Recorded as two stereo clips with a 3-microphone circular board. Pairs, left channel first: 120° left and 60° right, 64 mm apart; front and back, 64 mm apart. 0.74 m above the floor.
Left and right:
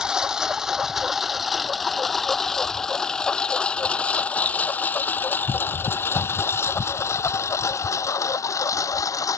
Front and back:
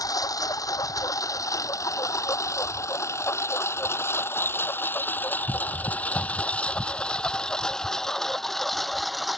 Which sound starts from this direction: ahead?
A lawn mower, at 0.0 s.